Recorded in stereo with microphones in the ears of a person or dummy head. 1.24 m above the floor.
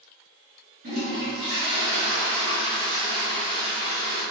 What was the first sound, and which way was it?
A toilet flushing, 40° right (ahead or behind).